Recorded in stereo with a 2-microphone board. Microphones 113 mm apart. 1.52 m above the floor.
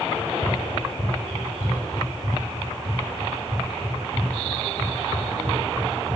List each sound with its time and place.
0.1 s running footsteps: 50° right (ahead or behind), 4 m; by 6.2 s 75° right (ahead or behind), 6 m